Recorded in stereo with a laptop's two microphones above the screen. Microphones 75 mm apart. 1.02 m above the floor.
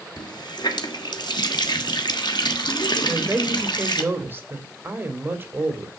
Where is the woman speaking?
30° right (ahead or behind), 2.5 m.